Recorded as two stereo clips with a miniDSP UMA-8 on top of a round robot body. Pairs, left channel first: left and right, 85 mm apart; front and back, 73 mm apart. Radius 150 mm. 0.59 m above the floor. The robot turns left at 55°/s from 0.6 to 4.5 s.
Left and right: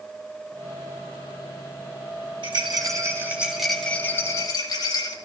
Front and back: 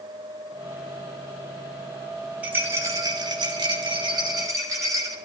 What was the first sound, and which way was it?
A rattle, 110° right.